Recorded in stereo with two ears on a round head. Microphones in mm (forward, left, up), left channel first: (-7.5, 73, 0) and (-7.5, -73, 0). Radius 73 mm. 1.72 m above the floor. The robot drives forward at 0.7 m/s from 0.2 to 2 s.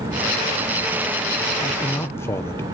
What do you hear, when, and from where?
1.6 s a man speaking: 10° left (ahead or behind), 1.0 m; by 2.6 s 15° left (ahead or behind), 0.8 m